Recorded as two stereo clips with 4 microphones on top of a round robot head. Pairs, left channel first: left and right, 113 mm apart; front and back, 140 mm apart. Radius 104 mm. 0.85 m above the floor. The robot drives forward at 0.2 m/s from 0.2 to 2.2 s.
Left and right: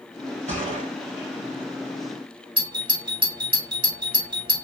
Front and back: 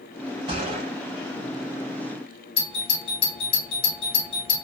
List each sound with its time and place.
0.5 s a gunshot: 115° right, 1.4 m
2.6 s a doorbell: 50° right, 1.8 m